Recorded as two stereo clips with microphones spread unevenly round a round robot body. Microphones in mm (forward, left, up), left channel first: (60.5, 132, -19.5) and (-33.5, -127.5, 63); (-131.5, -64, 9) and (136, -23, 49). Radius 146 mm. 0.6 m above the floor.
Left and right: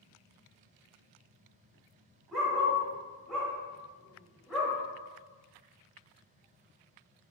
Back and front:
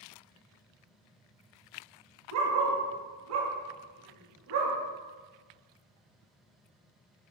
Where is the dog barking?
25° right, 0.9 m.